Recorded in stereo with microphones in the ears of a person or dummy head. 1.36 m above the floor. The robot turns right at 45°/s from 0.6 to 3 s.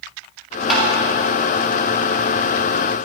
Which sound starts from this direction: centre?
Tapping, at 0.7 s.